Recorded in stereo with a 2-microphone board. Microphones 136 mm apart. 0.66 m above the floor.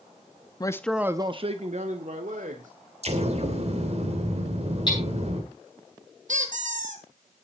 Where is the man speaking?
30° left (ahead or behind), 0.7 m; by 2.7 s 70° right (ahead or behind), 2 m.